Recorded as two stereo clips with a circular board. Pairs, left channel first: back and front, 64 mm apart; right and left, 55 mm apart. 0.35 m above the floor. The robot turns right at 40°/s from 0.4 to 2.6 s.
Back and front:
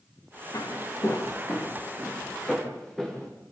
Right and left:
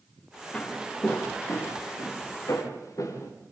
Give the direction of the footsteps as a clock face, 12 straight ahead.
5 o'clock.